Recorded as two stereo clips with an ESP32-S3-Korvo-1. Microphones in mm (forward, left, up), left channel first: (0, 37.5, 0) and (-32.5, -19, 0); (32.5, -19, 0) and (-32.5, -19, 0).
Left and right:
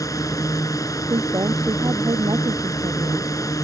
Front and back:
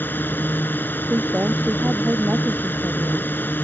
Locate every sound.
0.0 s a drone: 55° left
1.1 s a woman speaking: 115° right